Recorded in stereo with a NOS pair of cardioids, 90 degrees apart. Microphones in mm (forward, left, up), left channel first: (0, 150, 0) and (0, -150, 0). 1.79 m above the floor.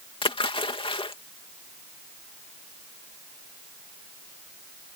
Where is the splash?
15° left.